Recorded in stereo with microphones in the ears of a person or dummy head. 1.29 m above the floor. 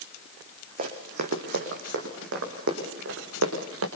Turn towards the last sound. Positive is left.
turn(degrees=-75)  # may be behind; listen again after turning